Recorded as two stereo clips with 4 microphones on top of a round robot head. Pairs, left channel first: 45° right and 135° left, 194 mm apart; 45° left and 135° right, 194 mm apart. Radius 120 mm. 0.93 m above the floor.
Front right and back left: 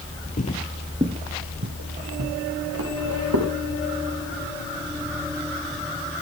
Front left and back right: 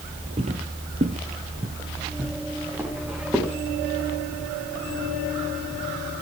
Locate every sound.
0.4 s footsteps: 80° right, 1.2 m; by 3.5 s 140° left, 4 m